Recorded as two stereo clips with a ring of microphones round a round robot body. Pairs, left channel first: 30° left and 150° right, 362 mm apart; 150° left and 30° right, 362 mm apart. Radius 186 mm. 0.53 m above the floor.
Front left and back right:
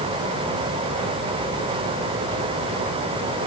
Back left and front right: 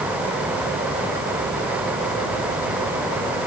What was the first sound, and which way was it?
Only background noise.